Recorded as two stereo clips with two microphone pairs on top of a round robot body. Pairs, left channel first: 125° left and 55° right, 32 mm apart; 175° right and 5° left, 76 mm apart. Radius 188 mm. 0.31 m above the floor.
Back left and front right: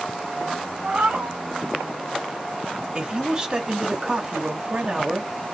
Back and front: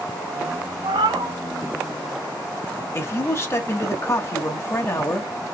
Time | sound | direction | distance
0.8 | a cat meowing | 5° right | 1.6 m
2.9 | a man speaking | 120° right | 2 m